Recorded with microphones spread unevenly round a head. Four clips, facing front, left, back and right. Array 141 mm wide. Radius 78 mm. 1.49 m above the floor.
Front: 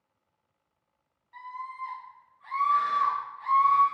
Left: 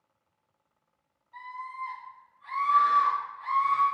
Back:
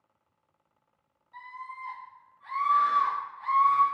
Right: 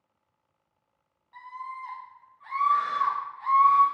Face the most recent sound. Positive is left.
turn(degrees=-110)